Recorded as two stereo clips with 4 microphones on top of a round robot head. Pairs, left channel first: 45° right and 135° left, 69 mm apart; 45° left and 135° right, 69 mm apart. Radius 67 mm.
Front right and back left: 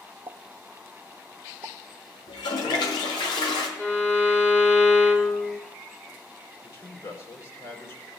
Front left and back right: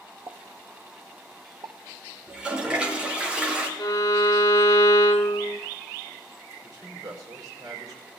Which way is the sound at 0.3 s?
175° left.